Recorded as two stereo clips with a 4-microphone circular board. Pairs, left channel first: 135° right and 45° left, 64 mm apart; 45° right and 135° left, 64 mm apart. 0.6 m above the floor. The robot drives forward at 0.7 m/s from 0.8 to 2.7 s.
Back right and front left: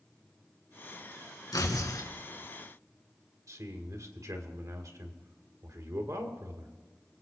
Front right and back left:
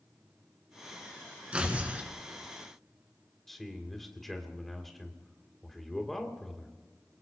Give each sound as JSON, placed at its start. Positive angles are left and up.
{"t": 1.5, "sound": "tearing paper", "azimuth_deg": -155, "distance_m": 2.0}
{"t": 3.5, "sound": "a man speaking", "azimuth_deg": 40, "distance_m": 2.0}